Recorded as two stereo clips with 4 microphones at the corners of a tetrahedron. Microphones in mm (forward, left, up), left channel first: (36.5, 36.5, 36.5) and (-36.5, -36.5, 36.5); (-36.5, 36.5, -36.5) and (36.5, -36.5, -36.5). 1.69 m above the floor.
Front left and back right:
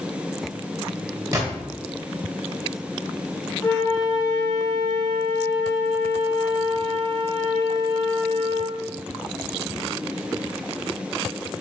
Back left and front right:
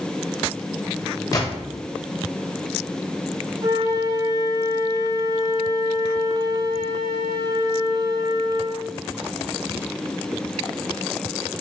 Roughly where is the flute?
Ahead.